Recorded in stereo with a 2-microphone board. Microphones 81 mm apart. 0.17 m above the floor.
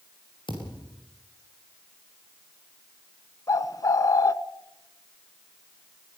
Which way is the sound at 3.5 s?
45° left (ahead or behind).